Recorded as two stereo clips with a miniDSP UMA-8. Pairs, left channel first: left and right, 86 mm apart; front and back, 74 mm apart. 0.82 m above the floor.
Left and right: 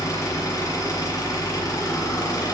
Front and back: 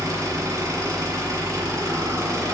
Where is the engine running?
135° left, 1.6 m.